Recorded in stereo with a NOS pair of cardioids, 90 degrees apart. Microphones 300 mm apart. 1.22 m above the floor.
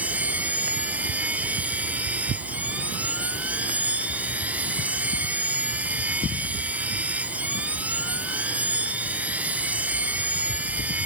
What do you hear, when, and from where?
0.0 s a machine running: 5° right